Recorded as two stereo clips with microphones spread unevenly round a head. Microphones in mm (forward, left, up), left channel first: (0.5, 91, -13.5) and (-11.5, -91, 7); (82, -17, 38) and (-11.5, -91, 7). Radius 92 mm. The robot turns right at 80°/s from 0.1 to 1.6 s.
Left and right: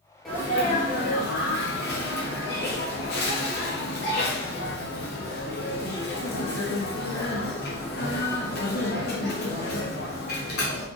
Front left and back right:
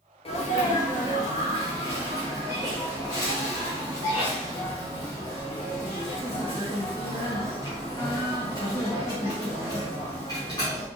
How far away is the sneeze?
About 1.3 m.